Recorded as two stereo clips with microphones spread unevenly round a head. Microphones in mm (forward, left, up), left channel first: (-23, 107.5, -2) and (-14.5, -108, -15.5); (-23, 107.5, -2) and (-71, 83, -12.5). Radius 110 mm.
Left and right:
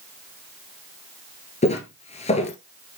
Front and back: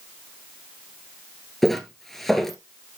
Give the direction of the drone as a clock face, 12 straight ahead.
I don't hear a drone.